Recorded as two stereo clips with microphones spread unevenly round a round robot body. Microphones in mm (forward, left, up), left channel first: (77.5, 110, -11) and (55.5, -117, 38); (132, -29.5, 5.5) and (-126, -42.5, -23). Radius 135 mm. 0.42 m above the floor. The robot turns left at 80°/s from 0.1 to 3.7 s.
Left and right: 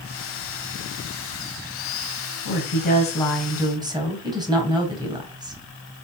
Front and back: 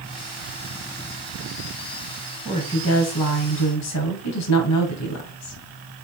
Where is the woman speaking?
80° left, 2.5 m; by 5.6 s 20° right, 2.5 m.